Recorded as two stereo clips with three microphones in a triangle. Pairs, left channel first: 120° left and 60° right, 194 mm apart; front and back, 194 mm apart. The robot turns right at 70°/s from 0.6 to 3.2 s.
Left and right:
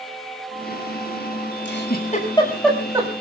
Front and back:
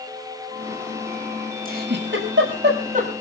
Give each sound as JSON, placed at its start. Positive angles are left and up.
{"t": 1.6, "sound": "a giggle", "azimuth_deg": 140, "distance_m": 7.0}